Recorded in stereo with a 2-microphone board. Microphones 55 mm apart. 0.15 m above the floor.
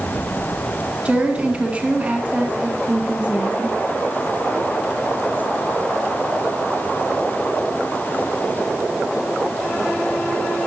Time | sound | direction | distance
1.1 | a woman speaking | 25° right (ahead or behind) | 1.8 m